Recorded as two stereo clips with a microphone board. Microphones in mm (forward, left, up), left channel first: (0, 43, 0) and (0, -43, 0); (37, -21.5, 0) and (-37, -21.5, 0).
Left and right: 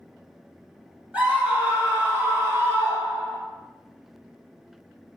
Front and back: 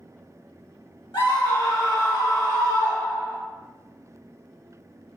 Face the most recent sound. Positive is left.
turn(degrees=-40)